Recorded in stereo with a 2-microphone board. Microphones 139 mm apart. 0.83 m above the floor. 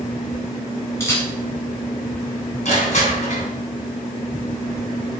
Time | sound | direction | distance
1.0 | a camera shutter | 20° left (ahead or behind) | 3 m
2.6 | crushing | 55° left (ahead or behind) | 3 m